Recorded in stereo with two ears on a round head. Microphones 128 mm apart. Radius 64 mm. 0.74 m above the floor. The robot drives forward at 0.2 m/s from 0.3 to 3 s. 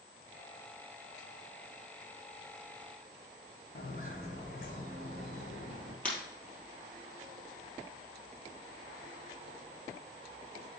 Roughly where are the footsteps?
Left.